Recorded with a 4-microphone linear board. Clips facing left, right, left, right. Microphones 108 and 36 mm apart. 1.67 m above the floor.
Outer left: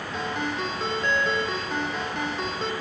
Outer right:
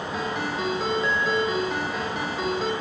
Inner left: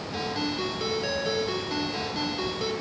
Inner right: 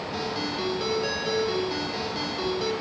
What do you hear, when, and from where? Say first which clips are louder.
0.1 s a ringtone: even, inner left 1 dB; 5° right (ahead or behind), 3 m